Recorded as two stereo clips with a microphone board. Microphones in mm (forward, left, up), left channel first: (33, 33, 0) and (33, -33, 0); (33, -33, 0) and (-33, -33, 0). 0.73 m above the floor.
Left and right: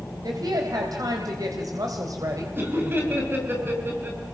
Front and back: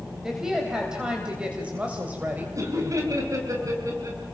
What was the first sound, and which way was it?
A woman speaking, 95° right.